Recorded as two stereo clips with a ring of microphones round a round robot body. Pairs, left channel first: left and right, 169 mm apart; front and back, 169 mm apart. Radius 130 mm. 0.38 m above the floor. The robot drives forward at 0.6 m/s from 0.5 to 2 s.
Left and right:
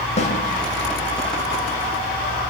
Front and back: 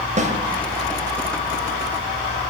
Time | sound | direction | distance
0.2 | a snare drum | 140° left | 2.5 m